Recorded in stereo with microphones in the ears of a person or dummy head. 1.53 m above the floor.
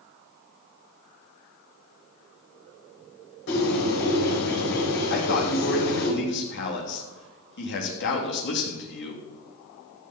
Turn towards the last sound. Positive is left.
turn(degrees=60)  # may be behind; listen again after turning